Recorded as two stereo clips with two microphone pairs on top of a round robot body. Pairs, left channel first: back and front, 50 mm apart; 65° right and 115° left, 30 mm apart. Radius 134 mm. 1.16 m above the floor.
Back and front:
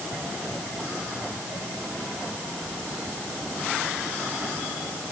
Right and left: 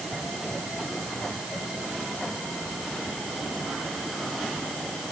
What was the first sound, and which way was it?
Only background noise.